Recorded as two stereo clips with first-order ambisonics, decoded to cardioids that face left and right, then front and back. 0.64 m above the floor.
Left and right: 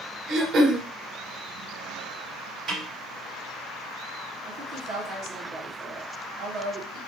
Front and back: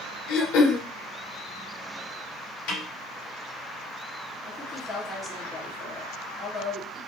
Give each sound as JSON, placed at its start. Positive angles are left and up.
{"t": 0.3, "sound": "throat clearing", "azimuth_deg": -35, "distance_m": 0.7}
{"t": 2.7, "sound": "a snare drum", "azimuth_deg": -20, "distance_m": 2.5}
{"t": 4.5, "sound": "a woman speaking", "azimuth_deg": -85, "distance_m": 1.4}